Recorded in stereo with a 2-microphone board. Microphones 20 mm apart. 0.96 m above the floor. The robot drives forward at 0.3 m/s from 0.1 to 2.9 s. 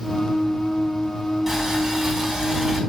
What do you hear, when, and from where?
1.5 s boiling: 15° right (ahead or behind), 4 m